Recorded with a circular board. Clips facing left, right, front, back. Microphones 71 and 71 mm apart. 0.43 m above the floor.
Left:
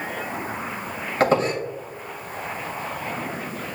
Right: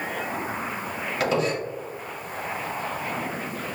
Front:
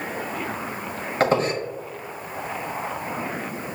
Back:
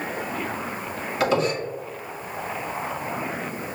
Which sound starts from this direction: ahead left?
A squeak, at 1.2 s.